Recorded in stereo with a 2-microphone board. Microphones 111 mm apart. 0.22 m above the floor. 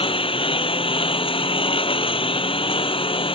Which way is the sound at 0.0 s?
55° left (ahead or behind).